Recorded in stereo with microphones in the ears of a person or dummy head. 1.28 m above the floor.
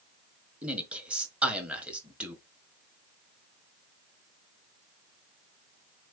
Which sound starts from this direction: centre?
A man speaking, at 0.6 s.